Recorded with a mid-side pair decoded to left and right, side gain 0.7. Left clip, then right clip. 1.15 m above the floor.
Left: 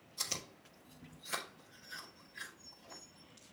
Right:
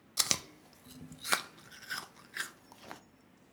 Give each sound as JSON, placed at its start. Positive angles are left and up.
{"t": 0.2, "sound": "chewing", "azimuth_deg": -65, "distance_m": 0.8}